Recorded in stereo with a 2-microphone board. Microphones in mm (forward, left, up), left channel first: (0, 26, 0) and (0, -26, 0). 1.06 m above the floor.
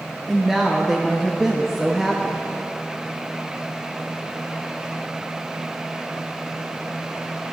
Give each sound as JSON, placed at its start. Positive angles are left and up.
{"t": 0.3, "sound": "a woman speaking", "side_deg": -5, "distance_m": 0.5}